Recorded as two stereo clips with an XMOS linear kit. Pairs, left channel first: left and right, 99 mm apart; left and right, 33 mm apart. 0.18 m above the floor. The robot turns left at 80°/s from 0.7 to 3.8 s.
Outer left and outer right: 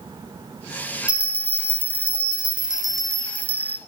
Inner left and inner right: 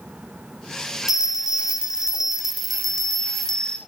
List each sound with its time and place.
1.1 s a bell: 10° right (ahead or behind), 1.6 m; by 3.8 s 20° left (ahead or behind), 1.6 m